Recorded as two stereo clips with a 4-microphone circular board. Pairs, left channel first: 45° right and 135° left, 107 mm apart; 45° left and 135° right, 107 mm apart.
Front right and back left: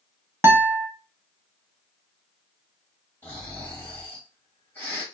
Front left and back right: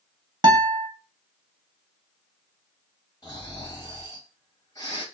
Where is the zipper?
No zipper in this recording.